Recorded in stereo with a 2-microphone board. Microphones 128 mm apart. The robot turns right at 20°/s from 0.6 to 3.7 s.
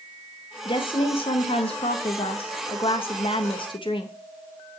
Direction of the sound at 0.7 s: 60° left.